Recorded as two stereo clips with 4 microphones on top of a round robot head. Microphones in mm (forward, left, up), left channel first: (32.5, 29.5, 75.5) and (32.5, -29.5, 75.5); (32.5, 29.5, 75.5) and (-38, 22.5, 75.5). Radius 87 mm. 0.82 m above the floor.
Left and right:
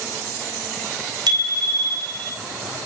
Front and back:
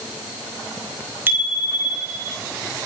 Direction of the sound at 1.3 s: 105° right.